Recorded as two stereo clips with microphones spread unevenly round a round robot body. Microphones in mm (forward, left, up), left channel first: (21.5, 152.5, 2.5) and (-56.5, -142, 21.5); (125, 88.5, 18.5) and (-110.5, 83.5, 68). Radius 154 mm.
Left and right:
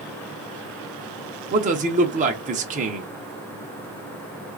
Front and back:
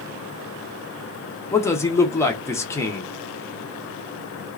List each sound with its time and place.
1.5 s a man speaking: 50° right, 0.8 m